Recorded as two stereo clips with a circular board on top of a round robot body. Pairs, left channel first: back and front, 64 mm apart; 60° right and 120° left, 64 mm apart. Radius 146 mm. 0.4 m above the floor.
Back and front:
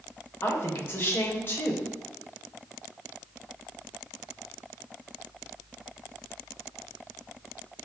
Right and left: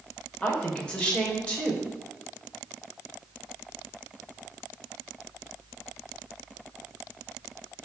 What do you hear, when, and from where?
0.4 s a woman speaking: 130° right, 2.5 m